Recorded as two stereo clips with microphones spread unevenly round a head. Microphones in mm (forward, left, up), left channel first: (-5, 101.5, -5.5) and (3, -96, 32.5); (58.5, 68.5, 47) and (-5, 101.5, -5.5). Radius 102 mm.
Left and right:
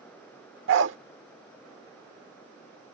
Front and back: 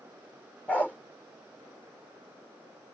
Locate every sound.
0.7 s a dog barking: 85° right